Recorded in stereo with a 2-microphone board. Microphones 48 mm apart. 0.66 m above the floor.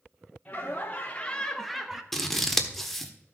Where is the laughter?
30° left (ahead or behind), 1.7 m; by 2.0 s 15° right (ahead or behind), 1.2 m.